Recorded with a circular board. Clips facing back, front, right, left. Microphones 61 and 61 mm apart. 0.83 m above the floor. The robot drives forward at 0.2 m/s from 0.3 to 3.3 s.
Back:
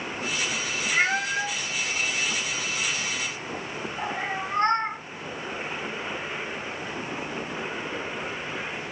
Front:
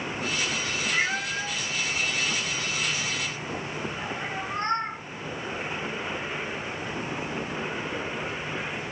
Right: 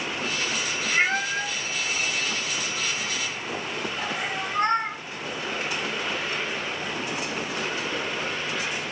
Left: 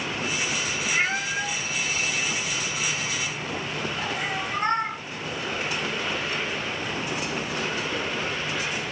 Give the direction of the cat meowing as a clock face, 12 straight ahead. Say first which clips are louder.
Back 5 dB, right 3 dB; 6 o'clock.